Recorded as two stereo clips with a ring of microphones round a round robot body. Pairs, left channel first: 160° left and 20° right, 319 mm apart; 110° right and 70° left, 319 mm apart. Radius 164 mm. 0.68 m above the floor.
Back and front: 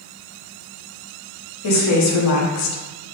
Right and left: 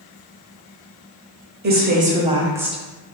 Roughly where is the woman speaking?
Behind left.